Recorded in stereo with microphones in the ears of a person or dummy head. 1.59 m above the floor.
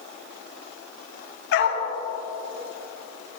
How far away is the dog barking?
About 4 m.